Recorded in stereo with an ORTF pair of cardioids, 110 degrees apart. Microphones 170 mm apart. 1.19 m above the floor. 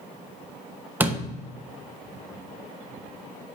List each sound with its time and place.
1.0 s a door slam: 10° right, 1.0 m